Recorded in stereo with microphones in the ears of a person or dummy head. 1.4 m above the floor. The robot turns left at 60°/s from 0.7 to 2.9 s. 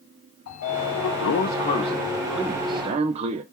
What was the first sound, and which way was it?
A sliding door, 100° left.